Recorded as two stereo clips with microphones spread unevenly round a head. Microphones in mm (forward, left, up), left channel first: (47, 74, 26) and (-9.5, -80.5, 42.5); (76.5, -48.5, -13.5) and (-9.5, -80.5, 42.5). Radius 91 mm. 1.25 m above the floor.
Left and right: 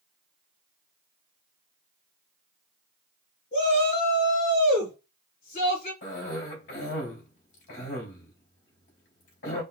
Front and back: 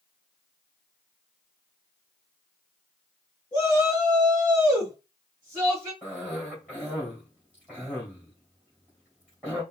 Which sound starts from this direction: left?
A cough, at 6.0 s.